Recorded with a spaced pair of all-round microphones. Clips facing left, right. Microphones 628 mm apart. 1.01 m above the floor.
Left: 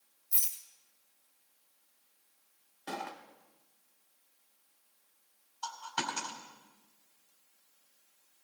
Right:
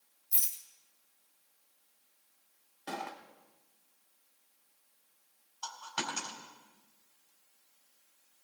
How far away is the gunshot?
About 0.9 m.